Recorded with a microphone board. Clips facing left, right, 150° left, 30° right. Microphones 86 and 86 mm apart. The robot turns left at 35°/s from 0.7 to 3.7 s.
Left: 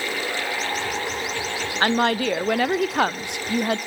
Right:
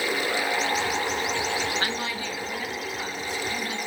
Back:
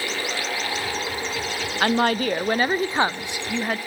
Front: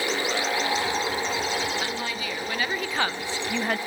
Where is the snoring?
I don't hear snoring.